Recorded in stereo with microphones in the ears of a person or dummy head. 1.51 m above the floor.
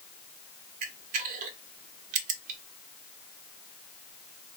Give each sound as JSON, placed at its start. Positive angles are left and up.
{"t": 0.8, "sound": "a camera shutter", "side_deg": -45, "distance_m": 0.6}